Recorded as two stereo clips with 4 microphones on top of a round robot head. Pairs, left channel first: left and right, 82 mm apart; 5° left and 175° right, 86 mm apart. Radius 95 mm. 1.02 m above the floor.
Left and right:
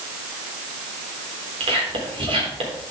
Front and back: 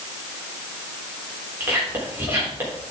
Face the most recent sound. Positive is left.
turn(degrees=-100)